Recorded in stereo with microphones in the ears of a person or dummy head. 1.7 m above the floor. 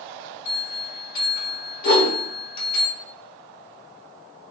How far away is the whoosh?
About 0.8 m.